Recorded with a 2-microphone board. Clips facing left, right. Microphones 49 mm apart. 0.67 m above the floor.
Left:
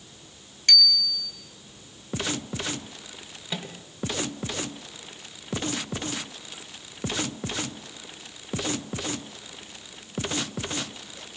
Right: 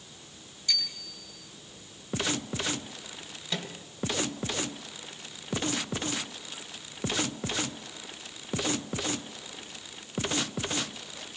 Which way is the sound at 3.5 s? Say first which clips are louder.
Left 1 dB; 15° left (ahead or behind).